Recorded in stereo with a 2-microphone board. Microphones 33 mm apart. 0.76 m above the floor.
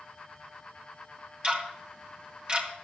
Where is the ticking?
30° right (ahead or behind), 2 m.